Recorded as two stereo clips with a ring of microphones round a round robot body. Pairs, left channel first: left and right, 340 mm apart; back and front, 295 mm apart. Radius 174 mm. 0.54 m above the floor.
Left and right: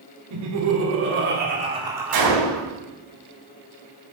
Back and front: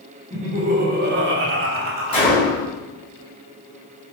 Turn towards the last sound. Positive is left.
turn(degrees=-105)